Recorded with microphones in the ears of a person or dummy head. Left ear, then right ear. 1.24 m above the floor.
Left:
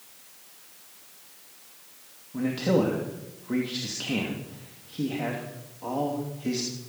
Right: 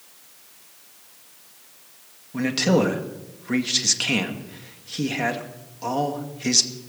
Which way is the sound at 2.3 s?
65° right (ahead or behind).